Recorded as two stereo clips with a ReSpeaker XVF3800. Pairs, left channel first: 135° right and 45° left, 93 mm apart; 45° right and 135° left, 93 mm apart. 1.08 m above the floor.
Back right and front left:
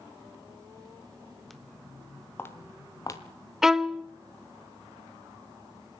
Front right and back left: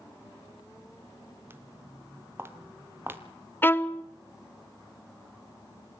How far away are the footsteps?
About 1.1 m.